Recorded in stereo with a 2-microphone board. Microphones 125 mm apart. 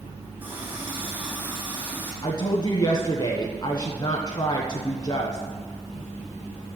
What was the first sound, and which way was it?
A running tap, 15° right (ahead or behind).